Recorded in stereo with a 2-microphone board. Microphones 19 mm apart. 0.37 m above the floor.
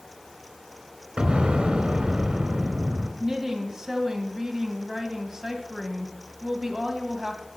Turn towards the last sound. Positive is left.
turn(degrees=-25)  # may be behind; listen again after turning